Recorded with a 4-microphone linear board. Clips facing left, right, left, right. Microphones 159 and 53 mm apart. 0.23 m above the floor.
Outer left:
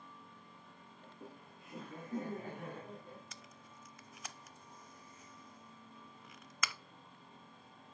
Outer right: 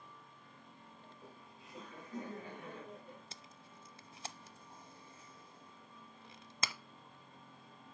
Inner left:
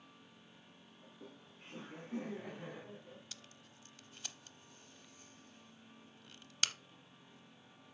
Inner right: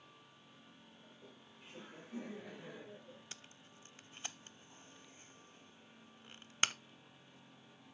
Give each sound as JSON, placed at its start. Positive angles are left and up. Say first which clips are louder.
{"t": 1.0, "sound": "laughter", "louder": "outer left 6 dB, inner left 6 dB", "side_deg": 60, "distance_m": 3.0}
{"t": 3.3, "sound": "tape being pulled", "louder": "even, inner right 1 dB", "side_deg": -30, "distance_m": 0.6}